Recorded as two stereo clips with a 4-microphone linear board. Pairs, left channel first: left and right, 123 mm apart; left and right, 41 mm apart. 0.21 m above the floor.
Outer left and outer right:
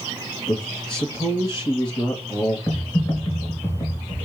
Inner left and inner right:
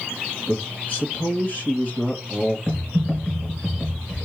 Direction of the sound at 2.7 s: 20° left (ahead or behind).